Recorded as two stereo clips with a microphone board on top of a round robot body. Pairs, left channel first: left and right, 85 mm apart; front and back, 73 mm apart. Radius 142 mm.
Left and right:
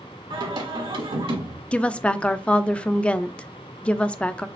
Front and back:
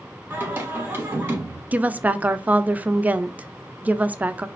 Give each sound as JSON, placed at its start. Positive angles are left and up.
{"t": 0.3, "sound": "singing", "azimuth_deg": -115, "distance_m": 1.4}
{"t": 1.7, "sound": "a woman speaking", "azimuth_deg": 150, "distance_m": 0.5}